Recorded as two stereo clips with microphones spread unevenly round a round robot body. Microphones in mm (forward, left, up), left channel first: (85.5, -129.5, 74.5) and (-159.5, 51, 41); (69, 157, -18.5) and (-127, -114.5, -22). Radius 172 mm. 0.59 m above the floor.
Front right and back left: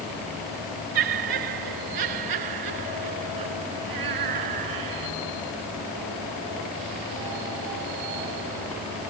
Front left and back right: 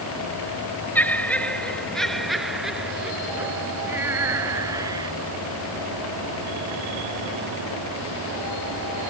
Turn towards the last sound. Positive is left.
turn(degrees=155)